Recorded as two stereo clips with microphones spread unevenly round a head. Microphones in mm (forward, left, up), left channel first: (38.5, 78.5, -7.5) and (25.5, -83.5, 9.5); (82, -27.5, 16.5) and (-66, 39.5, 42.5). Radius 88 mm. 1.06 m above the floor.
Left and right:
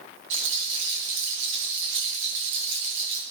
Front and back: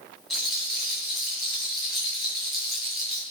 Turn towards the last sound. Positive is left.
turn(degrees=-115)